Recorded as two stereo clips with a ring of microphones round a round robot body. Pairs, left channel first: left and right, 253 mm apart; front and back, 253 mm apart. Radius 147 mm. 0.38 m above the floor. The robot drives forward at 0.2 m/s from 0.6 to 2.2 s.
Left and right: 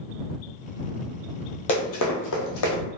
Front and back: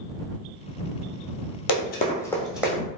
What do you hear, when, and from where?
1.7 s running footsteps: 25° left, 0.7 m; by 2.8 s 100° left, 1.3 m